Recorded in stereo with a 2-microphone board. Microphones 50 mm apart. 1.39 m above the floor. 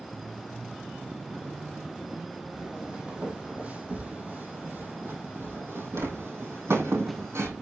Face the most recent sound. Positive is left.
turn(degrees=-60)  # may be behind; listen again after turning